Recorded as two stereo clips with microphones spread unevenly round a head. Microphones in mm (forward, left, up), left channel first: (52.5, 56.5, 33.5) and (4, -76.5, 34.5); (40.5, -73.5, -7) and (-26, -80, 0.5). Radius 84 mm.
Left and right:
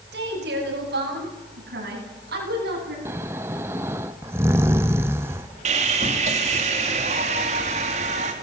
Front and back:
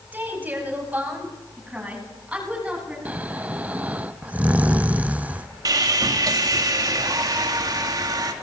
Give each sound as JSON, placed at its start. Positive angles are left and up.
{"t": 0.1, "sound": "a woman speaking", "azimuth_deg": -115, "distance_m": 8.5}
{"t": 3.0, "sound": "snoring", "azimuth_deg": -170, "distance_m": 0.6}
{"t": 5.7, "sound": "sawing", "azimuth_deg": -160, "distance_m": 2.5}